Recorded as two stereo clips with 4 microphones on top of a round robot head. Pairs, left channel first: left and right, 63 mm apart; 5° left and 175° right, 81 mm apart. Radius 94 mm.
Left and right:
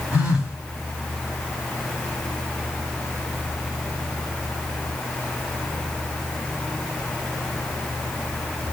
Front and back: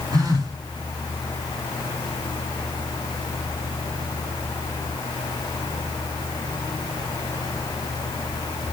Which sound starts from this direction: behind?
A phone buzzing, at 0.1 s.